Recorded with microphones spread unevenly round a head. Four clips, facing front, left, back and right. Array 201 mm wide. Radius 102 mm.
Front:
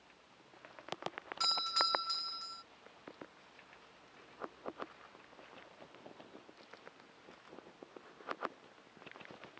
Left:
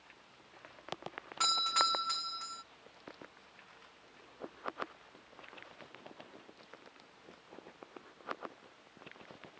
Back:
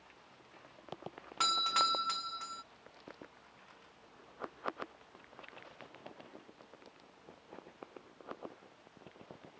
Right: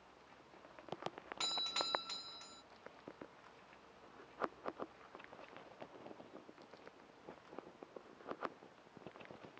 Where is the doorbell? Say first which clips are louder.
Left 12 dB, back 5 dB; 170° left.